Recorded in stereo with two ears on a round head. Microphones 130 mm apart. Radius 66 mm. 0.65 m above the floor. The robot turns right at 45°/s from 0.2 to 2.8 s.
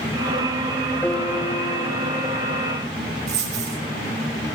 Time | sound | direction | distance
1.0 | a piano | 5° left (ahead or behind) | 1.0 m
3.3 | a dropped coin | 45° right (ahead or behind) | 5 m